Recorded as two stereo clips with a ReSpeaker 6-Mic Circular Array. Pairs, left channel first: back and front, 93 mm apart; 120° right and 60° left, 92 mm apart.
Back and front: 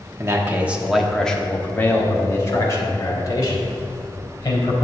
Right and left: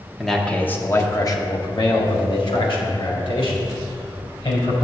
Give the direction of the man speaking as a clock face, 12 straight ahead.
1 o'clock.